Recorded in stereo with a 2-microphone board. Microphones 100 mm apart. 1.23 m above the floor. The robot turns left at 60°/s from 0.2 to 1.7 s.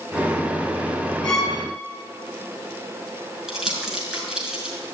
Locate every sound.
1.2 s a violin: 10° left (ahead or behind), 3.5 m; by 1.6 s 10° right (ahead or behind), 3.5 m
3.5 s crumpling: 10° right (ahead or behind), 5.5 m